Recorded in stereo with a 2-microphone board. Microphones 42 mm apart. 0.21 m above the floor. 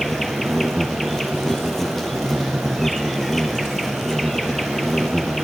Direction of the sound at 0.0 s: 5° left (ahead or behind).